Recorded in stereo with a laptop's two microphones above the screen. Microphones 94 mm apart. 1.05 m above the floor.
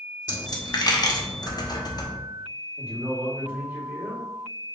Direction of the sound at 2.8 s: 20° right (ahead or behind).